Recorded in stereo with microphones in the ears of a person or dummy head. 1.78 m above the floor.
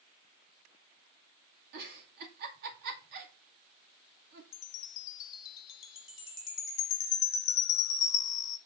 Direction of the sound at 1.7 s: 65° right (ahead or behind).